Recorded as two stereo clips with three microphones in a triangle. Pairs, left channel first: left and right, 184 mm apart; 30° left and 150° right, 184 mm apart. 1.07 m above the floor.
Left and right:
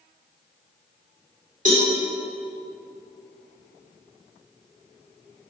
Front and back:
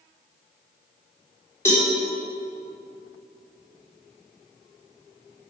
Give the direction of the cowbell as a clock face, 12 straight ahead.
2 o'clock.